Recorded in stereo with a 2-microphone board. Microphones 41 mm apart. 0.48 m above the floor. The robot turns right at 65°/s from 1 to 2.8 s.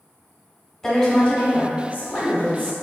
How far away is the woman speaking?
About 1.3 m.